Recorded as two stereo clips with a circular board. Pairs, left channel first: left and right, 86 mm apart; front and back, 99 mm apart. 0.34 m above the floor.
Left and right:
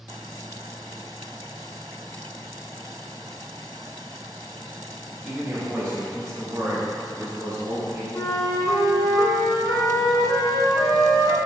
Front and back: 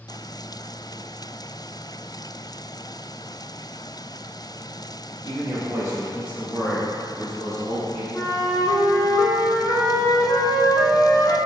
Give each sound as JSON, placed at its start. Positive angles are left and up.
{"t": 5.2, "sound": "a man speaking", "azimuth_deg": -155, "distance_m": 1.4}
{"t": 8.1, "sound": "a flute", "azimuth_deg": 60, "distance_m": 0.5}